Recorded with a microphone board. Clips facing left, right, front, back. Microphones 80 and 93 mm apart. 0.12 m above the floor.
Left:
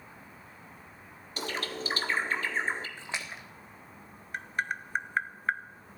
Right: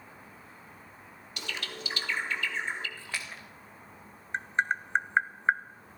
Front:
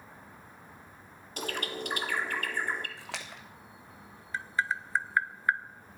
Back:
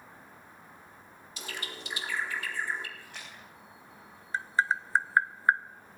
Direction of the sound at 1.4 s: 35° left.